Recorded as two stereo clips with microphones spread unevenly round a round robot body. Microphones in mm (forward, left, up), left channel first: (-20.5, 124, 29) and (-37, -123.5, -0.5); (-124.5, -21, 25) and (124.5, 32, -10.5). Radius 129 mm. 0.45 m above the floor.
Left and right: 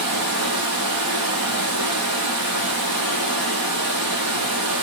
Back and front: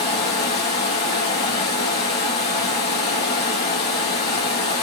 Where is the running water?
115° right, 3.5 m.